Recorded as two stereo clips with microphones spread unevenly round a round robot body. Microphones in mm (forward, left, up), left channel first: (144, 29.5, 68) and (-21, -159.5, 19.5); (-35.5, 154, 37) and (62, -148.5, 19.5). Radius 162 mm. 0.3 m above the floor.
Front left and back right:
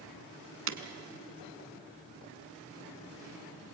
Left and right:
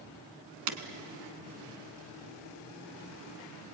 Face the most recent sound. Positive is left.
turn(degrees=-100)